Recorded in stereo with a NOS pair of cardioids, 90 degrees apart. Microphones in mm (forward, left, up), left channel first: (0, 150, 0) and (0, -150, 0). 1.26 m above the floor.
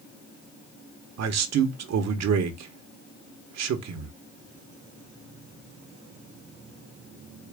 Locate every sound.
1.2 s a man speaking: 65° right, 1.2 m